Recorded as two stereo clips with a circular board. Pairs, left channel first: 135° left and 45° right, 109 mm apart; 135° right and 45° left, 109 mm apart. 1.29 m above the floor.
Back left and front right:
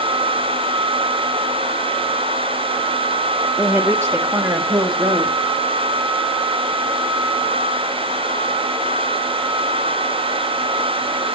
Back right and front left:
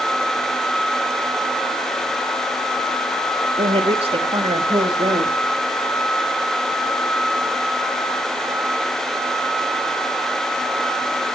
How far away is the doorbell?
No doorbell in this recording.